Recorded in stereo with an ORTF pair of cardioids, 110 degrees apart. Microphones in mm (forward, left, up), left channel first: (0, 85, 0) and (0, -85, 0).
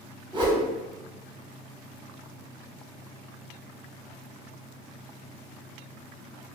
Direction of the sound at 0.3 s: 25° right.